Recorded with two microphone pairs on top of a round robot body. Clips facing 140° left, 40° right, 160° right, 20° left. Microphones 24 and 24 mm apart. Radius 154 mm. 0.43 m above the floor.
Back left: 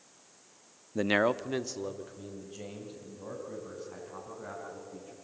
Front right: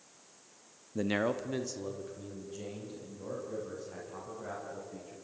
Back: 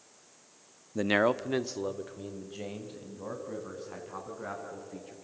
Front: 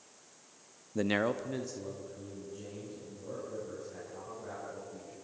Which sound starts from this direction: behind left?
A man speaking, at 0.9 s.